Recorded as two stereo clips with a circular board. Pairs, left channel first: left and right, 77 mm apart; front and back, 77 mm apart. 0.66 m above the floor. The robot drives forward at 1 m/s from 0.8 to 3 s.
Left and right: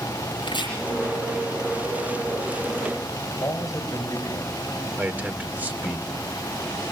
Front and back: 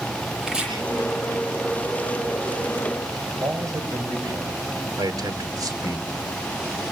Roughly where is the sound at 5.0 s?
Behind right.